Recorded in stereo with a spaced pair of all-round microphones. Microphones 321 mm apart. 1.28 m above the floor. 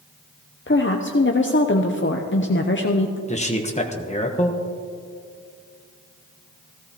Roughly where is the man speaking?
Left.